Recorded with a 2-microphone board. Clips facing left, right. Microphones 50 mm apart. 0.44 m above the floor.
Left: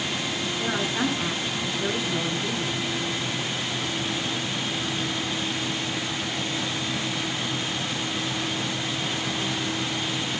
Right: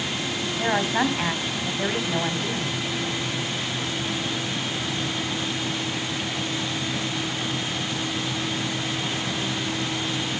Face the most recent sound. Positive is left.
turn(degrees=-70)  # may be behind; listen again after turning